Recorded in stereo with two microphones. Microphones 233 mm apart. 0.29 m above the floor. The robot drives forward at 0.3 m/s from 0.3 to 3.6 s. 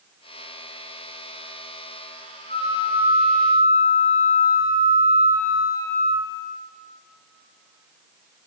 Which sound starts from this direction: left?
A flute, at 2.5 s.